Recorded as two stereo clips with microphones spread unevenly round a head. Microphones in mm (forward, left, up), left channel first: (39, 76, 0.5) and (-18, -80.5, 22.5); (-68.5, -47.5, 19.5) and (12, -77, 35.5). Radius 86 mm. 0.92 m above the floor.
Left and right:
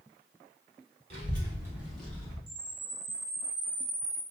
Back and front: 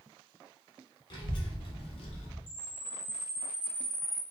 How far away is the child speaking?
About 1.4 m.